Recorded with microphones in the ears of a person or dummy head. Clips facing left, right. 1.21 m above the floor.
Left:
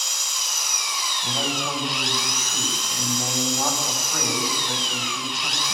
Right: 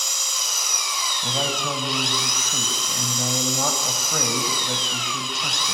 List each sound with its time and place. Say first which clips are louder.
0.0 s an engine running: right 2 dB; 80° right, 4 m
1.2 s a man speaking: right 1 dB; 75° right (ahead or behind), 7 m